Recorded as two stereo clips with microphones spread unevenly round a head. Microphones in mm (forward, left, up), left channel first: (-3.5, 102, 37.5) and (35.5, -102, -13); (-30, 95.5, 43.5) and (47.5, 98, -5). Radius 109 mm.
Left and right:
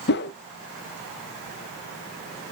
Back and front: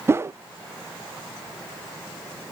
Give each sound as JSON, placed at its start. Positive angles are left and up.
{"t": 0.1, "sound": "a whoosh", "azimuth_deg": 60, "distance_m": 0.7}